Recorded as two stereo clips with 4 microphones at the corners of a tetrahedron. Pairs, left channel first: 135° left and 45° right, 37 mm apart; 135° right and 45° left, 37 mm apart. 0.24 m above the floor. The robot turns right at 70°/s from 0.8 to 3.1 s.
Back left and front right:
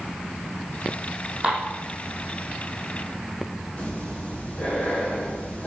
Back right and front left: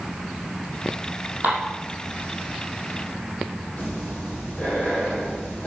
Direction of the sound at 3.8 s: 175° right.